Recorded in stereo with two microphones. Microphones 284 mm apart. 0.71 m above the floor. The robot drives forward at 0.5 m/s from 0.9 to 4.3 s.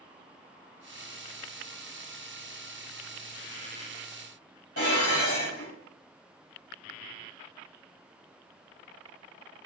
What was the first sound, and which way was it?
Dishes clattering, 50° left (ahead or behind).